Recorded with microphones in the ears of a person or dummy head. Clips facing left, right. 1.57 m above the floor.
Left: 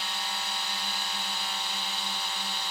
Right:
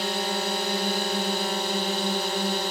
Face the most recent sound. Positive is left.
turn(degrees=-50)  # may be behind; listen again after turning